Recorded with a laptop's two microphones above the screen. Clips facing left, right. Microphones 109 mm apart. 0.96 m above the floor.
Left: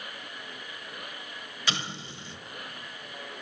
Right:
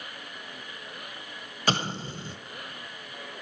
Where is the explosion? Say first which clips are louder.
Right 7 dB; 45° right (ahead or behind), 1.2 m.